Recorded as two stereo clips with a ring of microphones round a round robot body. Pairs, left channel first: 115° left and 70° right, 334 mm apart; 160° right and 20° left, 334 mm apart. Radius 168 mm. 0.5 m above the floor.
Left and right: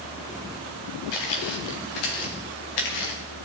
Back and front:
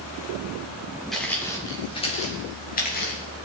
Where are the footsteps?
115° left, 3 m; by 3.2 s 140° left, 5.5 m.